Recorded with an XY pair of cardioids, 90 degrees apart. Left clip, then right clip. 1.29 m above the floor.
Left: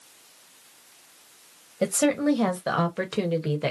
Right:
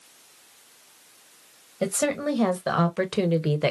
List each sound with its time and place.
1.8 s a woman speaking: straight ahead, 1.4 m; by 3.7 s 40° right, 0.9 m